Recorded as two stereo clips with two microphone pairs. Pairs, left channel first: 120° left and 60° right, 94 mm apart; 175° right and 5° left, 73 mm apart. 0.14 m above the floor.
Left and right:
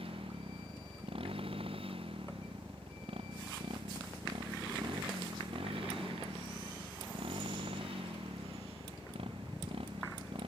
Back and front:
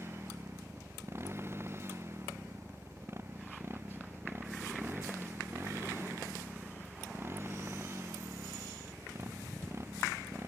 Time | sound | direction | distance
0.0 | a motorcycle | 50° right | ?